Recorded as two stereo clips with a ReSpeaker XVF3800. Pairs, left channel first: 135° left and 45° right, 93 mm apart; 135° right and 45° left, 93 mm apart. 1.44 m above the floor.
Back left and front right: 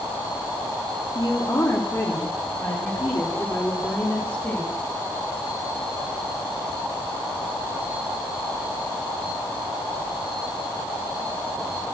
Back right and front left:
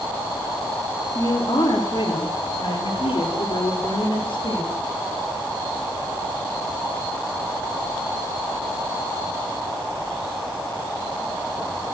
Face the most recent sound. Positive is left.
turn(degrees=-155)